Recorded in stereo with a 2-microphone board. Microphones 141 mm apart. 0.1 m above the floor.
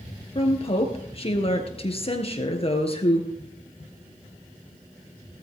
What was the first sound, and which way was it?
A woman speaking, 40° left (ahead or behind).